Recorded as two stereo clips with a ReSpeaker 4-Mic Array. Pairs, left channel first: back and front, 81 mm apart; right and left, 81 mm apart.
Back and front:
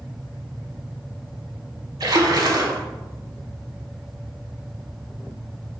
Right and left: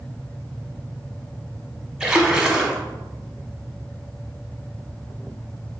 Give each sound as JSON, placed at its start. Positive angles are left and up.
{"t": 2.0, "sound": "a splash", "azimuth_deg": 15, "distance_m": 0.7}